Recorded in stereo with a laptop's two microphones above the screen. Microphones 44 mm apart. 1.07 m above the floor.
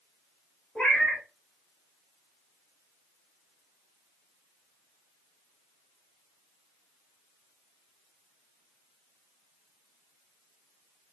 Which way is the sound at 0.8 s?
30° left (ahead or behind).